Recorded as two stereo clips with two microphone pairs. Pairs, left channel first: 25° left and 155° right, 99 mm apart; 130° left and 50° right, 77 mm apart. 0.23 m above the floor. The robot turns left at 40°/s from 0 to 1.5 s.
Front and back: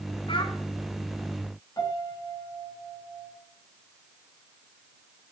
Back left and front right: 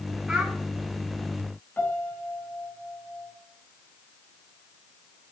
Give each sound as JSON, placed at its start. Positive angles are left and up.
{"t": 0.3, "sound": "a child speaking", "azimuth_deg": 35, "distance_m": 1.1}
{"t": 1.8, "sound": "a piano", "azimuth_deg": 70, "distance_m": 2.0}